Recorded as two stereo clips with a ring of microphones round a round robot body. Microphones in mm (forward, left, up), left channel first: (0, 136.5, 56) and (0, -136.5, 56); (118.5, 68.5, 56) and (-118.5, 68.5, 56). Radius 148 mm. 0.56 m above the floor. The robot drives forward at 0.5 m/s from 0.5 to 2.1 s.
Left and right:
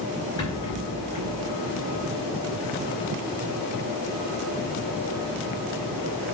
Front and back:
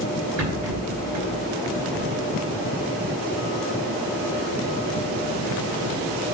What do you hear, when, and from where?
0.4 s a rattle: 160° left, 4 m; by 1.3 s 165° left, 4.5 m